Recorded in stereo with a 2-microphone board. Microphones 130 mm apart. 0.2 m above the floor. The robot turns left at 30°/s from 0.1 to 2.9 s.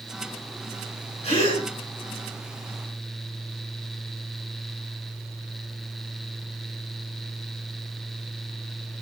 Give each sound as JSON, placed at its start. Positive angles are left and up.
{"t": 1.2, "sound": "a gasp", "side_deg": 60, "distance_m": 1.8}